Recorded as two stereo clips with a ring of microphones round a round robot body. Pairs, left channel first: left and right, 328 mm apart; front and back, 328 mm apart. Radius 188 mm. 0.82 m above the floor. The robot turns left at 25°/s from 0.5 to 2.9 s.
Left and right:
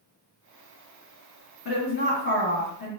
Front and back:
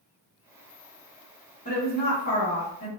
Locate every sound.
1.6 s a woman speaking: 60° left, 1.3 m; by 2.9 s 25° left, 1.3 m